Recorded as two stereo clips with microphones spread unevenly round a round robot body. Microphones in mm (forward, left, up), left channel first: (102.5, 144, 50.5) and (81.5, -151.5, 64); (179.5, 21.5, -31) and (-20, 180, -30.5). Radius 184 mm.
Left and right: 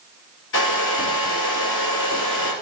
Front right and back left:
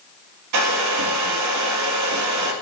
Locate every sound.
0.5 s a hair dryer: 145° left, 2.5 m